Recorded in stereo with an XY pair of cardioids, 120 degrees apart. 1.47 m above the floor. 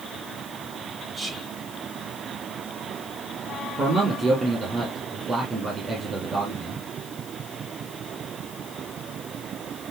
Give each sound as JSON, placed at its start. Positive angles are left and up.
{"t": 1.1, "sound": "whispering", "azimuth_deg": -15, "distance_m": 6.0}
{"t": 3.8, "sound": "a man speaking", "azimuth_deg": -35, "distance_m": 7.0}